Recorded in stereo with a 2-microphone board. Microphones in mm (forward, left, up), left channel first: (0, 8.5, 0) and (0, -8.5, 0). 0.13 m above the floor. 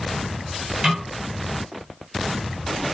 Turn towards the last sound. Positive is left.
turn(degrees=-35)  # may be behind; listen again after turning